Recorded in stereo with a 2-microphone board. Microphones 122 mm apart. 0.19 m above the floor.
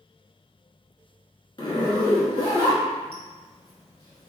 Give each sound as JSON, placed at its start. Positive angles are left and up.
{"t": 1.6, "sound": "a zipper", "side_deg": 40, "distance_m": 0.8}